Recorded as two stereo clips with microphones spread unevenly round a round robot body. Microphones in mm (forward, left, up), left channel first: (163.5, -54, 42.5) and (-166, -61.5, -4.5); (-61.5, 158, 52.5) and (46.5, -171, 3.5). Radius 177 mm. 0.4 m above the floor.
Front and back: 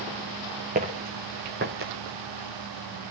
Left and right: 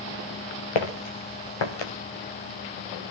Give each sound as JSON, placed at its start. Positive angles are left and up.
{"t": 0.8, "sound": "footsteps", "azimuth_deg": 110, "distance_m": 3.0}